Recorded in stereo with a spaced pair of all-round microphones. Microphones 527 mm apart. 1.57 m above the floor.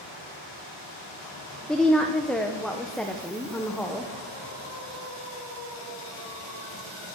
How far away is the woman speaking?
About 0.8 m.